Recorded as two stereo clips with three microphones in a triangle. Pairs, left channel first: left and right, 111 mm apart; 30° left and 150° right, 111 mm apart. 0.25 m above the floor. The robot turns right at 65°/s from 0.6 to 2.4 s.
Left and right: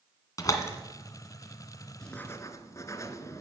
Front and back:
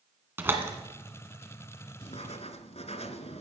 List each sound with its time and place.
0.4 s a door slam: 145° left, 1.9 m; by 0.7 s 150° left, 1.9 m
2.0 s writing: 5° left, 0.9 m; by 3.4 s 30° left, 0.9 m